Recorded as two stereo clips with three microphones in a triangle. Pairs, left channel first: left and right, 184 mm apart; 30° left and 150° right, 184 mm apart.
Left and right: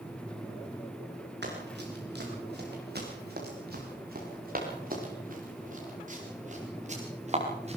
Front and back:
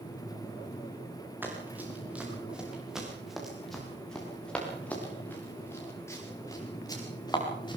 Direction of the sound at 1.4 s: 70° right.